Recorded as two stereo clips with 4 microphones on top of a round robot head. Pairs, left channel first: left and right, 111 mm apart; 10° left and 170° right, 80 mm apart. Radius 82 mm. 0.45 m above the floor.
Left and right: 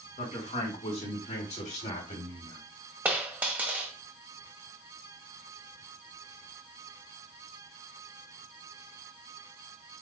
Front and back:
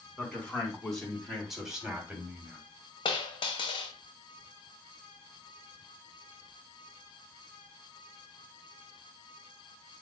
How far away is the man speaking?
About 4 m.